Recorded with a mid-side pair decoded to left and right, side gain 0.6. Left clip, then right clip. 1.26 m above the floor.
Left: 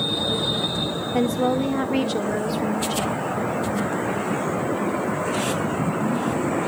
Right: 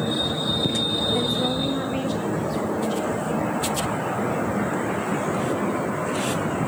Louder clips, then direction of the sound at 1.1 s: Left 2 dB; 40° left.